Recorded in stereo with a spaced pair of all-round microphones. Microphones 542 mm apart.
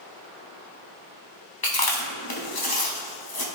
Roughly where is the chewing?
Left.